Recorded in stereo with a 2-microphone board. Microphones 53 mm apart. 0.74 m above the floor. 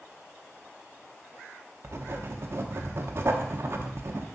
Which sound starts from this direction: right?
Writing, at 1.8 s.